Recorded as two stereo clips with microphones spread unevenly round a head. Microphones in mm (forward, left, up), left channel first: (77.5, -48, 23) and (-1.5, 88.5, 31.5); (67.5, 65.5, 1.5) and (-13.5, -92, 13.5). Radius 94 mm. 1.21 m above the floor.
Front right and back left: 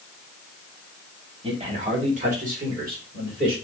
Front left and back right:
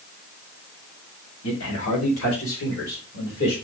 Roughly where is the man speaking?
Ahead left.